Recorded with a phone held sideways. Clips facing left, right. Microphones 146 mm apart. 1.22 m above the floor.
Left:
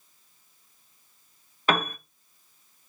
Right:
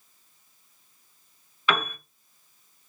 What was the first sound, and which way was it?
A piano, 45° left (ahead or behind).